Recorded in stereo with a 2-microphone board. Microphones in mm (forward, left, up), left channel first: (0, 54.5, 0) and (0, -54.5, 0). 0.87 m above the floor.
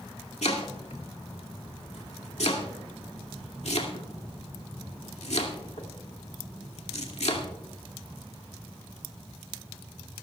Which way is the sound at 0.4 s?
80° left.